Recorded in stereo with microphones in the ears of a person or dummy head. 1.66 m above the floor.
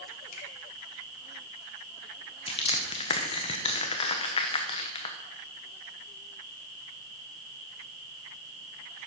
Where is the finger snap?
40° left (ahead or behind), 3 m.